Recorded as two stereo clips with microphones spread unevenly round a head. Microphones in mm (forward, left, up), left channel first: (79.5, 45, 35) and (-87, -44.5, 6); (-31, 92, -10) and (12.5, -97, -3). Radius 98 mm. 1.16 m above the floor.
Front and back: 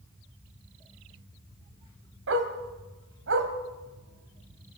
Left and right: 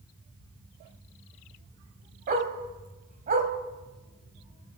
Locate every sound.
2.3 s a dog barking: 120° right, 2.5 m